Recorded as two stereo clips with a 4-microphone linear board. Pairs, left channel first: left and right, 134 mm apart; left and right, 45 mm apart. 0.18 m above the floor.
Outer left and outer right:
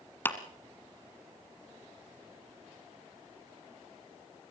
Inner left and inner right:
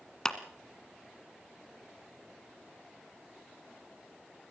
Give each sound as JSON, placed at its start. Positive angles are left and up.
{"t": 0.2, "sound": "a clap", "side_deg": 15, "distance_m": 1.7}